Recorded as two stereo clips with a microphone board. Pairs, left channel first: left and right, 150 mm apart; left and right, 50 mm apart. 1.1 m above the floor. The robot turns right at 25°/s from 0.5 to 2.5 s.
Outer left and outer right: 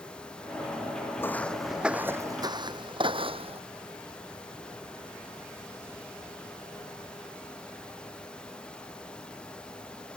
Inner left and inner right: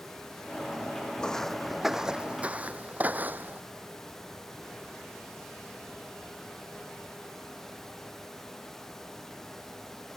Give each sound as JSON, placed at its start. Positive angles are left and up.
{"t": 1.2, "sound": "footsteps", "side_deg": 15}